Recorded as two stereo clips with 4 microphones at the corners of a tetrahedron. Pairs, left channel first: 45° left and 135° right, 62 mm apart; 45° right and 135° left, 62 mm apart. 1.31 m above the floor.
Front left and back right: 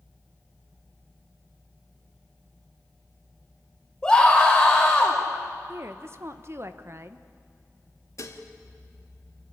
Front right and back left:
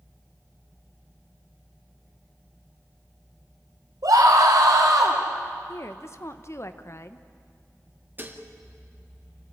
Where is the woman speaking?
90° right, 1.0 m.